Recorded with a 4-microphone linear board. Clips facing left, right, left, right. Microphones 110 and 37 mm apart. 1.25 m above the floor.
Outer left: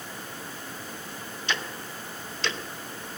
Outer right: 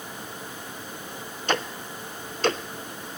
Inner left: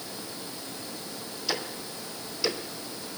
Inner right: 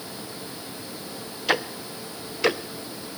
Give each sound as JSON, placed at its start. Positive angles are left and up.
{"t": 1.5, "sound": "ticking", "side_deg": -45, "distance_m": 0.7}